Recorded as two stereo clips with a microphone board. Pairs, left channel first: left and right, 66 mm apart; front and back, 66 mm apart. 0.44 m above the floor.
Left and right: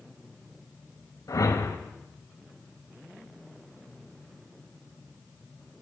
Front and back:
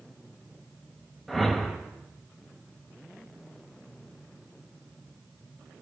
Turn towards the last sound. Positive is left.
turn(degrees=90)